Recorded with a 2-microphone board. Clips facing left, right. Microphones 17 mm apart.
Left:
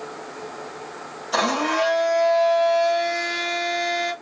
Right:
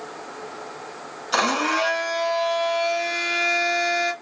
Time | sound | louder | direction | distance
1.3 | a blender | even | 30° right (ahead or behind) | 1.2 m